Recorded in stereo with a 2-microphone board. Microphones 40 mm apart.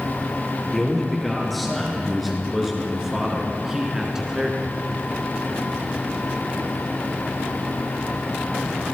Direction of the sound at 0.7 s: 5° left (ahead or behind).